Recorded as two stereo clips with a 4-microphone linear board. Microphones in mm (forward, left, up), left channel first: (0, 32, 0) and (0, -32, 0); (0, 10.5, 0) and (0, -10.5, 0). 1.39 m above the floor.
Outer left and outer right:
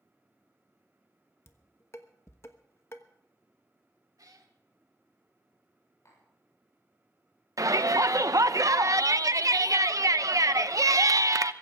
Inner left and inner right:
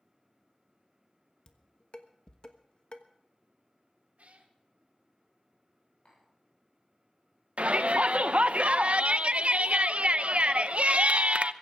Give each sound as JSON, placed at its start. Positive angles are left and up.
{"t": 1.5, "sound": "dishes clattering", "side_deg": 45, "distance_m": 1.3}
{"t": 4.2, "sound": "a cat meowing", "side_deg": -70, "distance_m": 1.9}
{"t": 6.0, "sound": "tapping", "side_deg": 55, "distance_m": 7.0}
{"t": 7.6, "sound": "a shout", "side_deg": -60, "distance_m": 0.9}